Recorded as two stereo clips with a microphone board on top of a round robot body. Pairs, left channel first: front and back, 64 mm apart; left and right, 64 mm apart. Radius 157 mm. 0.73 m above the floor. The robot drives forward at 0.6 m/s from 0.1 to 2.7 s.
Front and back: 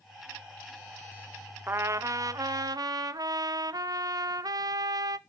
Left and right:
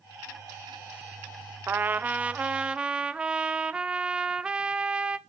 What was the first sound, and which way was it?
A trumpet, 135° right.